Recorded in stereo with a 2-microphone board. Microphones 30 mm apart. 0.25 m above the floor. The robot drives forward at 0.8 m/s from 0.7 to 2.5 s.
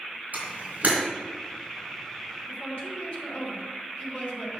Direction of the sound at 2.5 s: 40° left (ahead or behind).